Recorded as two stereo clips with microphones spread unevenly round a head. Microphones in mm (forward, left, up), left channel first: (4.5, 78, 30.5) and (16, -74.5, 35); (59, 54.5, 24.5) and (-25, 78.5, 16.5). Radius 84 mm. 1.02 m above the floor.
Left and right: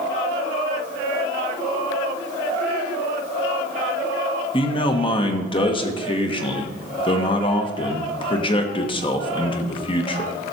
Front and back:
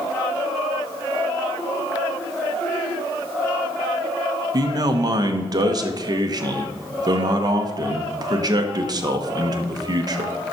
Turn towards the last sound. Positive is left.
turn(degrees=145)